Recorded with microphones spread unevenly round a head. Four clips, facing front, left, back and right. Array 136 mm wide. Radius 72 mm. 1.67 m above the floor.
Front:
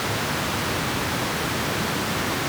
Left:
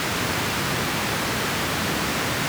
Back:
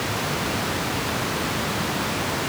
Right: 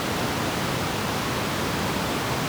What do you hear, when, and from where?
Only background noise.